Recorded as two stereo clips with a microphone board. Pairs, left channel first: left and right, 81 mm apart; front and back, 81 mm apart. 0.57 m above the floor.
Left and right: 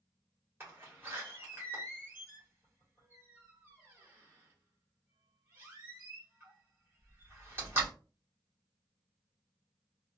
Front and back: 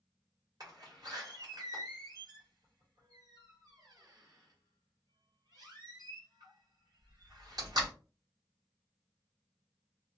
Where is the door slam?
150° right, 1.6 m.